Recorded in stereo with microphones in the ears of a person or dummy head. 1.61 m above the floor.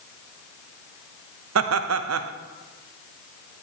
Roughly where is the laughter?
Right.